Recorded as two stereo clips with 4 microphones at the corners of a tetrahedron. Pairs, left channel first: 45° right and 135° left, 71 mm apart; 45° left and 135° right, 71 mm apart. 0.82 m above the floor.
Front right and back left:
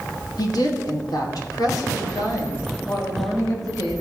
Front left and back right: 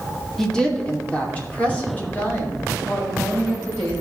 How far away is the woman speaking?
About 2 m.